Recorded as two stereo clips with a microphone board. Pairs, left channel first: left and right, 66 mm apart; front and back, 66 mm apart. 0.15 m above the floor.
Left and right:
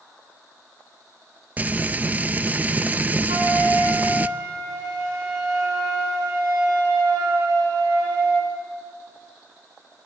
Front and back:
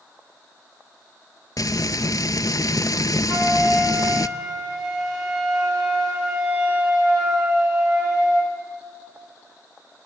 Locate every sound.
1.6 s frying: 25° right, 0.6 m
3.3 s a flute: 95° right, 8 m